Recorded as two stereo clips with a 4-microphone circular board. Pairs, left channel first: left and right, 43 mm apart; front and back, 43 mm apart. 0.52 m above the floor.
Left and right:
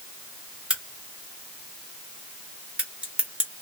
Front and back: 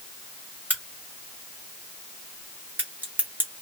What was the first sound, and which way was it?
A crack, 150° right.